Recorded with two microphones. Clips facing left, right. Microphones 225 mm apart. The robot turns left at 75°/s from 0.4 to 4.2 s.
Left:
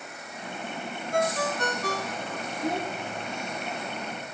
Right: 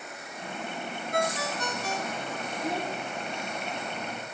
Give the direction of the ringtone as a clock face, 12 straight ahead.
7 o'clock.